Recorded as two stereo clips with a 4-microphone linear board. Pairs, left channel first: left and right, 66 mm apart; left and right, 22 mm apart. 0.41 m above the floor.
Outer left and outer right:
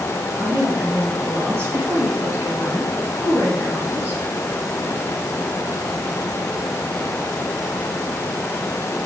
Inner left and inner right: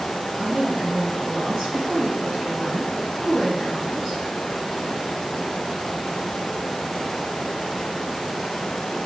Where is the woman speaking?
40° right (ahead or behind), 7 m; by 4.2 s 25° right (ahead or behind), 5 m.